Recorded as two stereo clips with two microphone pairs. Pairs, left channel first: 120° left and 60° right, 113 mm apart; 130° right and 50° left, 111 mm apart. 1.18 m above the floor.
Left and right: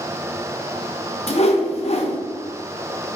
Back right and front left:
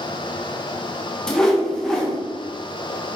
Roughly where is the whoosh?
Behind left.